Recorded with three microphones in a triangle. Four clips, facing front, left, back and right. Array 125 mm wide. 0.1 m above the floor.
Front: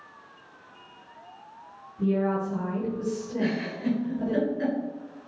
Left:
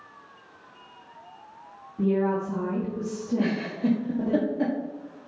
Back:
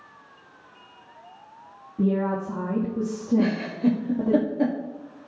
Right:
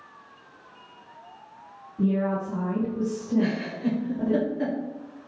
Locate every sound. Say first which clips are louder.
2.0 s a woman speaking: left 1 dB, back 1 dB; 170° left, 5 m
3.4 s a giggle: right 1 dB, back 5 dB; 150° left, 4 m